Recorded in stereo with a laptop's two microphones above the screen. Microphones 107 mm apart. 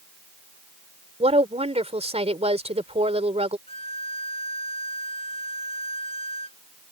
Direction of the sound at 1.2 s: 75° right (ahead or behind).